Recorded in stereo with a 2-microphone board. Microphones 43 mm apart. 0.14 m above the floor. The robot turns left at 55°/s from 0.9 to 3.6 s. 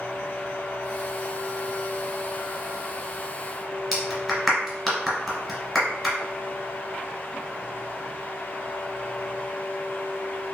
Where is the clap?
Centre (ahead or behind), 1.8 m.